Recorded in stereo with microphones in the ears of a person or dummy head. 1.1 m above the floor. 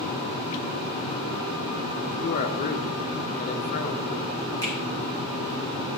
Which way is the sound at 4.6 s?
20° left (ahead or behind).